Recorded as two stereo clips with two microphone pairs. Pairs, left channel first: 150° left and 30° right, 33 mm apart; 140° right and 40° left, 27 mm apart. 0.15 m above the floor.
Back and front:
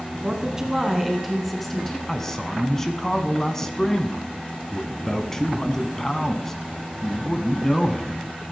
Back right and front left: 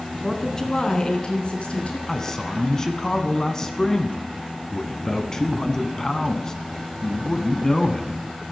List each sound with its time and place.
0.2 s a woman speaking: 70° right, 1.5 m; by 2.0 s 135° right, 1.9 m
2.1 s a man speaking: 150° right, 1.0 m